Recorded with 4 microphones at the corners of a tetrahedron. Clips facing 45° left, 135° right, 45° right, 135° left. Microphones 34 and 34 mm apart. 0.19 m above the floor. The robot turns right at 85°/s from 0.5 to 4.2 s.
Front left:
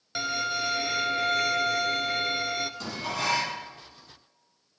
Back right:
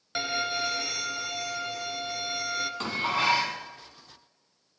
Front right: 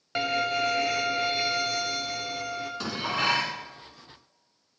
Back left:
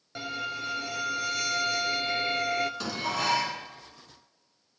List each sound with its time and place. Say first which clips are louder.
0.1 s a violin: even, front right 8 dB; 55° right, 0.7 m; by 2.7 s 130° left, 0.7 m
2.8 s dishes clattering: back right 4 dB, front right 2 dB; 120° right, 1.1 m; by 3.6 s 55° right, 1.1 m